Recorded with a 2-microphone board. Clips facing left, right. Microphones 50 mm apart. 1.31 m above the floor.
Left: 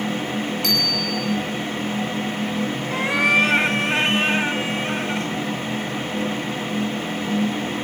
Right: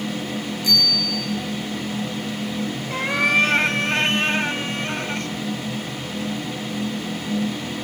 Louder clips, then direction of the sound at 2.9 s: Left 1 dB; 5° left (ahead or behind).